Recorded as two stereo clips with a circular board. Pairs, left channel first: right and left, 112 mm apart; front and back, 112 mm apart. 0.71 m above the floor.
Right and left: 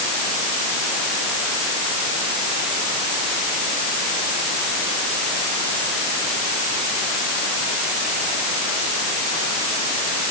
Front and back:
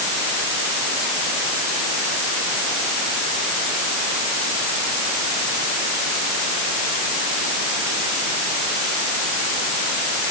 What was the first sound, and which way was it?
Only background noise.